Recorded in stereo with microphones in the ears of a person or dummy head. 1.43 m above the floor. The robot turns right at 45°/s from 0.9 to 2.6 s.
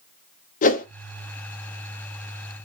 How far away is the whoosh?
About 0.7 m.